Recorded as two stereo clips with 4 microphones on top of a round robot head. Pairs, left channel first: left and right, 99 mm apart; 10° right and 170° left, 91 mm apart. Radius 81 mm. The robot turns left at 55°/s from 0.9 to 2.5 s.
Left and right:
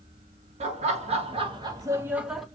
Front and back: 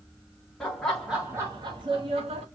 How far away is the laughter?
About 1.4 m.